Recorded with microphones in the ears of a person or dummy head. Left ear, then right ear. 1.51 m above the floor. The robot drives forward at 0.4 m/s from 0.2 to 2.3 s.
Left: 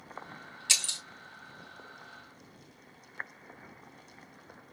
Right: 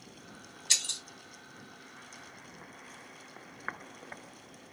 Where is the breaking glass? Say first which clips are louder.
Left 1 dB; 35° left (ahead or behind), 1.5 m; by 1.0 s 40° left (ahead or behind), 1.5 m.